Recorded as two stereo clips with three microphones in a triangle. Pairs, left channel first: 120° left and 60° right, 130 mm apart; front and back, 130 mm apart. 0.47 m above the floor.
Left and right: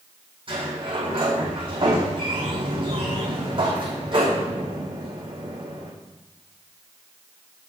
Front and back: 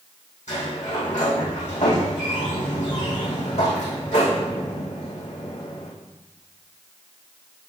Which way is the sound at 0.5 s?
15° right.